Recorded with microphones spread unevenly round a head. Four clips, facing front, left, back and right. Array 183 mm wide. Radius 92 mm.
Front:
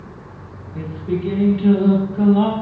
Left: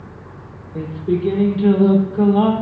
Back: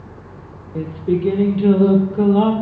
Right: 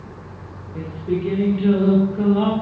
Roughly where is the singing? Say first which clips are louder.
Left 3 dB, back 4 dB; behind.